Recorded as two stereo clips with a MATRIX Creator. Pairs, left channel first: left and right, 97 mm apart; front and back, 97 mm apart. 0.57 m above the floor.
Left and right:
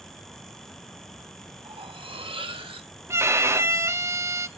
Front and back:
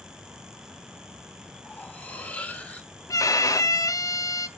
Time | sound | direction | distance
1.6 | cutlery clinking | 75° right | 0.9 m
3.1 | a violin | 40° right | 0.5 m